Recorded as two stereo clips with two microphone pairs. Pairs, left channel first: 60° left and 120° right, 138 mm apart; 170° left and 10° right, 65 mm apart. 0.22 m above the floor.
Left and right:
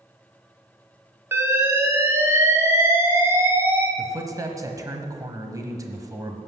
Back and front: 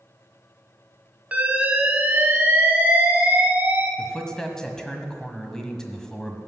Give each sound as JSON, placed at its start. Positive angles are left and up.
{"t": 1.3, "sound": "an alarm", "azimuth_deg": -60, "distance_m": 1.9}
{"t": 4.0, "sound": "a man speaking", "azimuth_deg": -125, "distance_m": 1.4}